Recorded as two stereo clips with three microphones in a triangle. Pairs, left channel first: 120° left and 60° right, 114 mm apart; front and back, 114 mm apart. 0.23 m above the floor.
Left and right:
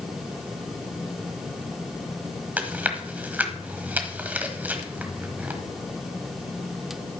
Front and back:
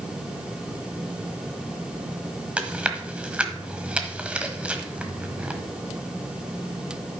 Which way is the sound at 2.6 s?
115° right.